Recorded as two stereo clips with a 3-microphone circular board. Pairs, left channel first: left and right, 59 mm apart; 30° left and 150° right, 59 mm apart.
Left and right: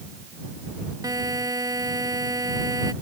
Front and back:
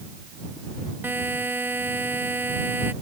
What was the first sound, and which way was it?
A buzzer, 95° right.